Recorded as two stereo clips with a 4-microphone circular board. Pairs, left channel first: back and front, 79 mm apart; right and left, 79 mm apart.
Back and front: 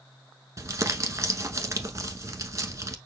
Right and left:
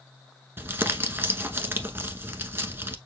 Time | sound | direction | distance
0.6 | crumpling | 35° left | 0.9 m